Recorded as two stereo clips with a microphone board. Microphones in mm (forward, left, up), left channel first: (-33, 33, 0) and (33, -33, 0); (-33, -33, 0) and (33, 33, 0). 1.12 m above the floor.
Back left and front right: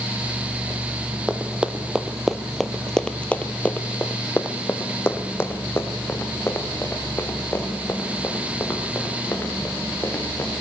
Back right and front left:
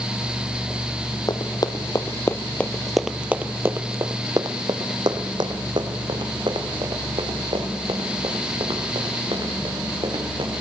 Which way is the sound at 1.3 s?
120° right.